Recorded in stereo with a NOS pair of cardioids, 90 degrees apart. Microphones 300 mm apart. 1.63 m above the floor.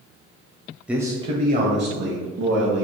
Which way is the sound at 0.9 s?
5° right.